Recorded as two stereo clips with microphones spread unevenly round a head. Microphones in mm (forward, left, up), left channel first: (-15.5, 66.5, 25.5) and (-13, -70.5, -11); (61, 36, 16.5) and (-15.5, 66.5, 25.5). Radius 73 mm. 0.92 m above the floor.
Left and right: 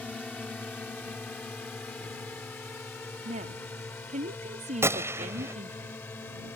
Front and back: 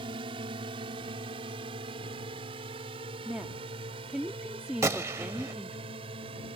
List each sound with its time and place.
0.0 s a drone: 175° left; by 6.6 s 165° left
3.2 s a woman speaking: 120° right
4.8 s a gunshot: 170° right